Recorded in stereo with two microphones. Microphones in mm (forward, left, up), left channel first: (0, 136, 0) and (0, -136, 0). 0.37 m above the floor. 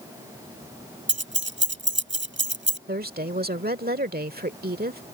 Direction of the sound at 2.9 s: 35° right (ahead or behind).